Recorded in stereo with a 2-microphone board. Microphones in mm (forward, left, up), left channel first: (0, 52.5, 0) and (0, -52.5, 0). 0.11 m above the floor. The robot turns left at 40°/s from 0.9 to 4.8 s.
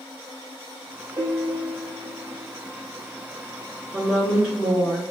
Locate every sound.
1.2 s a piano: 45° right, 0.6 m; by 2.5 s 95° right, 0.6 m
3.9 s a woman speaking: 5° left (ahead or behind), 1.7 m; by 5.1 s 10° right (ahead or behind), 1.7 m